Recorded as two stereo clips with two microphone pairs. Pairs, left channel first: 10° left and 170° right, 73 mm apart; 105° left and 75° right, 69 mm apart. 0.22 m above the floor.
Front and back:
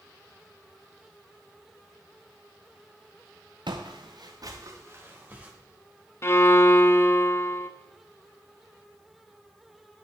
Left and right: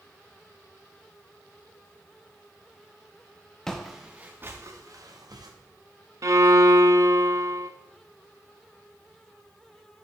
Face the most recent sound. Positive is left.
turn(degrees=-40)